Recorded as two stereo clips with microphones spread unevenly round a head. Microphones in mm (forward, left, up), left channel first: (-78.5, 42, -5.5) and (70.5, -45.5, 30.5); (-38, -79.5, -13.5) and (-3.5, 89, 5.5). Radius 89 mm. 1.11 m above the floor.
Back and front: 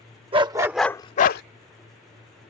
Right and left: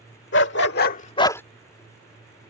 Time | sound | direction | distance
0.3 | a dog barking | 80° right | ?